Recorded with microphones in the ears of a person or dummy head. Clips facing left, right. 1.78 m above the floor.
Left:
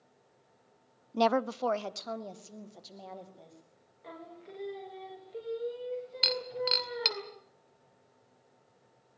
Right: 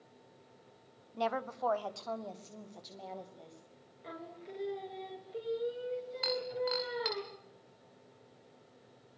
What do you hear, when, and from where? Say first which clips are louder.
1.1 s a woman speaking: left 8 dB; 80° left, 0.6 m; by 3.6 s 5° left (ahead or behind), 3 m
4.0 s singing: right 1 dB; centre (ahead or behind), 3 m
6.2 s breaking glass: even; 45° left (ahead or behind), 2 m